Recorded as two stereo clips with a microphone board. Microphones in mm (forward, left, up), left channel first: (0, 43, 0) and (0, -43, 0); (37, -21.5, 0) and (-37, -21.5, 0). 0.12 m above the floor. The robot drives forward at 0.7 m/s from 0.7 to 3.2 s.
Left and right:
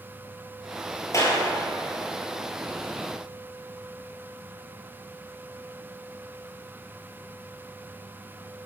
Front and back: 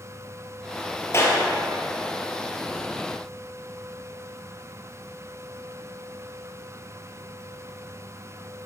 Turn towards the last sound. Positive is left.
turn(degrees=90)